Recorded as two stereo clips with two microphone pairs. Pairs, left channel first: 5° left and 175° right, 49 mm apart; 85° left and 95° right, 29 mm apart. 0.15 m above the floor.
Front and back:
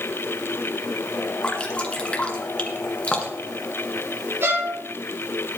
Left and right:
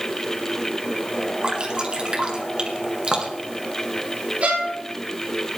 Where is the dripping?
55° right, 2 m.